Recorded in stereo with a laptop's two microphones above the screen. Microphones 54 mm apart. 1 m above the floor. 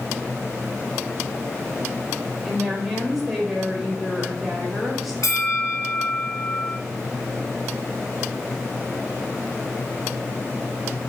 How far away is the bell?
About 1.5 m.